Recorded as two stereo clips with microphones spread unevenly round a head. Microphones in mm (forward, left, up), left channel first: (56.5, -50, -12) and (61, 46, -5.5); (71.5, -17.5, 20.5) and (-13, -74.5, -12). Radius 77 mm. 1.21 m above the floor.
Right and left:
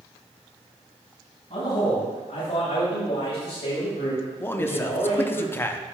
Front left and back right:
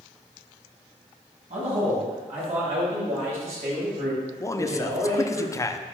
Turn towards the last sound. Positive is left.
turn(degrees=-35)